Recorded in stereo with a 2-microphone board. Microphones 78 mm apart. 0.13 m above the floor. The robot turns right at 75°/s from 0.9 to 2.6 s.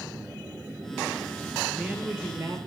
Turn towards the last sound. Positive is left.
turn(degrees=-115)